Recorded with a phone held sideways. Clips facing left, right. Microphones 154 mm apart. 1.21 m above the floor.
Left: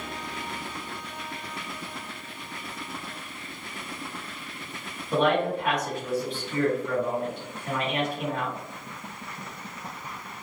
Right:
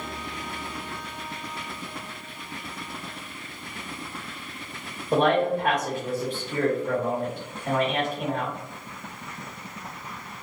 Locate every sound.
5.1 s a man speaking: 40° right (ahead or behind), 1.3 m